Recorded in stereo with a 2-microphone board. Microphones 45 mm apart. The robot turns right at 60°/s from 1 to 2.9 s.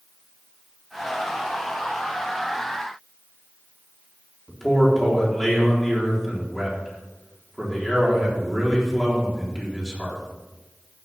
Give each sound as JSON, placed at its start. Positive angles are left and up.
{"t": 4.5, "sound": "a man speaking", "side_deg": 5, "distance_m": 4.0}